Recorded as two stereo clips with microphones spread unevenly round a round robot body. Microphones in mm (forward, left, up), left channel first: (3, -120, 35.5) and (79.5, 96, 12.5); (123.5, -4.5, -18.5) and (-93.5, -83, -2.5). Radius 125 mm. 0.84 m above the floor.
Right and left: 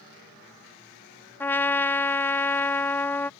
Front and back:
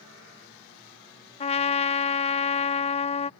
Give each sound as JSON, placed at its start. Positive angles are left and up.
{"t": 1.4, "sound": "a trumpet", "azimuth_deg": -25}